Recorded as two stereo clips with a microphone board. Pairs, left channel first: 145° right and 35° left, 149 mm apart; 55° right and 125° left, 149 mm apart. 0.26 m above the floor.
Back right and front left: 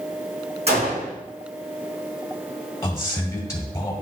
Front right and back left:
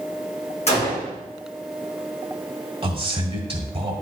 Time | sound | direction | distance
0.7 | a gunshot | 10° right | 4 m
2.8 | a man speaking | 155° left | 1.5 m